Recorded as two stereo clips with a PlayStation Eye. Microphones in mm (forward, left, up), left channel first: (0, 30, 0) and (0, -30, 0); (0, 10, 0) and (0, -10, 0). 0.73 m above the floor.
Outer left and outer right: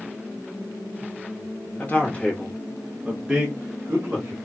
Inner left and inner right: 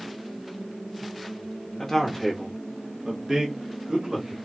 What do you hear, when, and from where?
1.8 s a man speaking: 30° left (ahead or behind), 1.2 m; by 4.3 s 35° right (ahead or behind), 1.4 m